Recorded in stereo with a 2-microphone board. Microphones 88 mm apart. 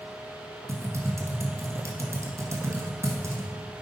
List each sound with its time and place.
0.7 s typing on a keyboard: 35° right (ahead or behind), 1.2 m